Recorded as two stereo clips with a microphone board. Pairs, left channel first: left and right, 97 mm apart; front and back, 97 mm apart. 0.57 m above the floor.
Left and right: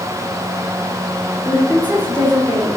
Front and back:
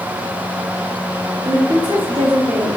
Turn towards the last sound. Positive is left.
turn(degrees=-170)